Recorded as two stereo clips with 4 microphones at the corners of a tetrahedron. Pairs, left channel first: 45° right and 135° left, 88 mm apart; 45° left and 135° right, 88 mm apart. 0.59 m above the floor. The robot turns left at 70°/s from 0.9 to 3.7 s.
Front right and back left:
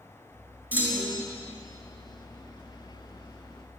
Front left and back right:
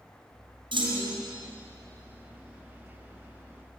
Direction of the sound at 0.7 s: 155° right.